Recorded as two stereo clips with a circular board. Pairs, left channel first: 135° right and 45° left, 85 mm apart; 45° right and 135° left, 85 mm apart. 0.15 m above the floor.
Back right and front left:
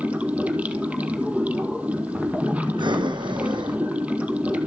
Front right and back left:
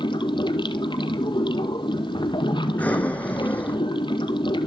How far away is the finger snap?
No finger snap in this recording.